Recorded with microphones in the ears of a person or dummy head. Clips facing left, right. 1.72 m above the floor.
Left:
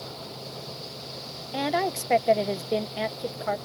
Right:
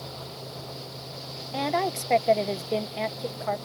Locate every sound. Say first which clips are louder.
1.5 s a woman speaking: even; 10° left (ahead or behind)